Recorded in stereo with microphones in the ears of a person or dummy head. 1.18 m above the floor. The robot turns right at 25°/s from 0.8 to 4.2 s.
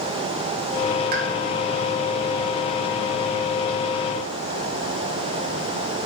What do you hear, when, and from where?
1.1 s a pop: 50° right (ahead or behind), 1.0 m; by 1.2 s 55° right (ahead or behind), 1.0 m